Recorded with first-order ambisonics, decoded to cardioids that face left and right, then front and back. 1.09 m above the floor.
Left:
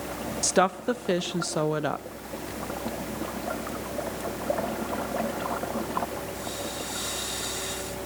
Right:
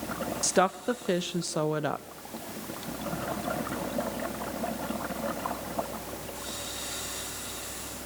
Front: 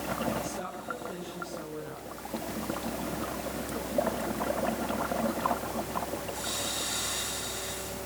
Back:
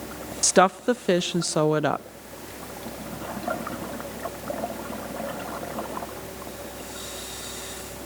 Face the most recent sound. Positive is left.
turn(degrees=170)